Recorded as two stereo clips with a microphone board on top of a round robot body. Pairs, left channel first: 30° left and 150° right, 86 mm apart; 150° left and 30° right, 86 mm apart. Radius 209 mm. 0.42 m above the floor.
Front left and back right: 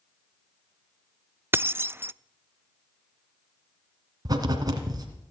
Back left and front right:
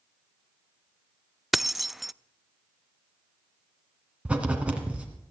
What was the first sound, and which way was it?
Keys jangling, 115° right.